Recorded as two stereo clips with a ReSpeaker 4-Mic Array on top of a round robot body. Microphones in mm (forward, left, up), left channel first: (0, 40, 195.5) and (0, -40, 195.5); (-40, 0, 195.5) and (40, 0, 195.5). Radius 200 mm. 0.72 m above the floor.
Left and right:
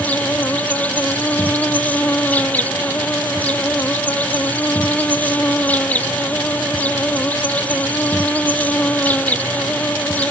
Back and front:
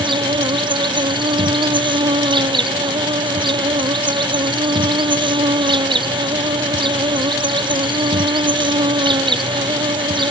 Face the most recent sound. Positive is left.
turn(degrees=20)